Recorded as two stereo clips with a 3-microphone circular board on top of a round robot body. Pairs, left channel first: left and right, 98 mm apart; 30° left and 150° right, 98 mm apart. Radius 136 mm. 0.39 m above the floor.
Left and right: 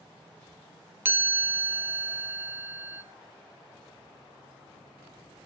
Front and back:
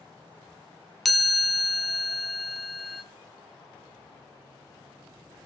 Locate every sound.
1.1 s a chime: 60° right, 1.0 m